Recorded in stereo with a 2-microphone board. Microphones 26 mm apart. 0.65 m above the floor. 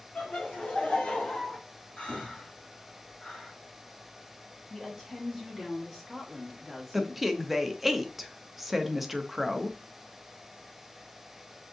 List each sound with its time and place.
0.1 s laughter: 60° left (ahead or behind), 1.4 m; by 1.6 s 20° left (ahead or behind), 0.9 m
2.0 s breathing: 55° left (ahead or behind), 2.5 m
4.7 s a woman speaking: 10° left (ahead or behind), 1.2 m
6.9 s a woman speaking: 5° right (ahead or behind), 0.5 m